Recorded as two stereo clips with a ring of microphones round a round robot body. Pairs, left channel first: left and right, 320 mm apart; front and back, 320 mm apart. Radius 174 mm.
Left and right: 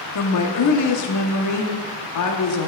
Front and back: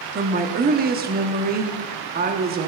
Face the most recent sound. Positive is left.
turn(degrees=120)